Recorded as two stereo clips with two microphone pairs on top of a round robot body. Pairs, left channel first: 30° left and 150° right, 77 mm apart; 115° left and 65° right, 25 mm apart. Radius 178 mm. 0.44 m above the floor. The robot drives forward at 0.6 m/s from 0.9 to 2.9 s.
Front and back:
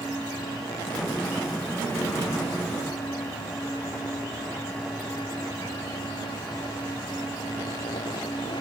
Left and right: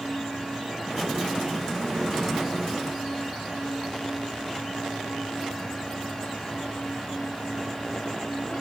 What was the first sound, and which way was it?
Only background noise.